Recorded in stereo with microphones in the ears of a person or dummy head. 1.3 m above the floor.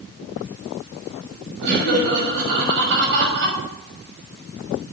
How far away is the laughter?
About 6 m.